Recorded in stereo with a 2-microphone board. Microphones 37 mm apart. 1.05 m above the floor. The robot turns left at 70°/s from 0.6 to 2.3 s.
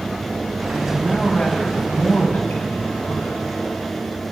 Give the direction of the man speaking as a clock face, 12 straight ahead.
5 o'clock.